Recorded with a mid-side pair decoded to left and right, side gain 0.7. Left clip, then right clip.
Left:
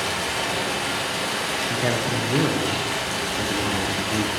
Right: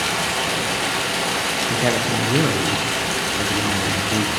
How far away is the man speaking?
About 0.5 m.